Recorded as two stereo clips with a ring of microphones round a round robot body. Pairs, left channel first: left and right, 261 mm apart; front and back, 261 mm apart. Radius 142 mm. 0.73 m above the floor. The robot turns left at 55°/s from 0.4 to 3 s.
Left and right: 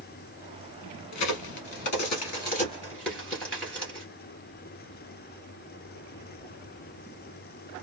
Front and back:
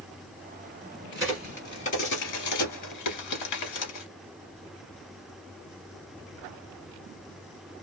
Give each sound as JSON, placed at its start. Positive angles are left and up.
{"t": 1.1, "sound": "a crack", "azimuth_deg": 105, "distance_m": 1.8}